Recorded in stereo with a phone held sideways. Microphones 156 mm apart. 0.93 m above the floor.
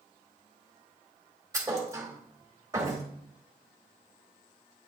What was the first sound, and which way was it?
A thud, 20° right (ahead or behind).